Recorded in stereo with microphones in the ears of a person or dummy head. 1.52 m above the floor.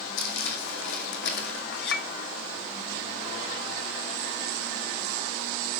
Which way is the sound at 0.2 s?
65° left (ahead or behind).